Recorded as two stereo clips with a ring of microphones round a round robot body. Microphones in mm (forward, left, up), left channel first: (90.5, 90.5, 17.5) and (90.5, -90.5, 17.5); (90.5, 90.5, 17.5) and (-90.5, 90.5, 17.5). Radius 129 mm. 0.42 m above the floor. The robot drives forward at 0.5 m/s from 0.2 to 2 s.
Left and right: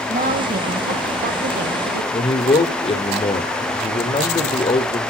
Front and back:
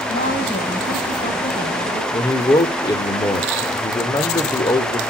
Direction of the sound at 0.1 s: 50° right.